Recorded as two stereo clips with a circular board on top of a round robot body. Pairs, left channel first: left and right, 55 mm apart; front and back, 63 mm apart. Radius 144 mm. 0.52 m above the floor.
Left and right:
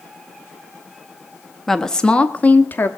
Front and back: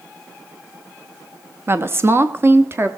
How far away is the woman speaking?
About 0.9 m.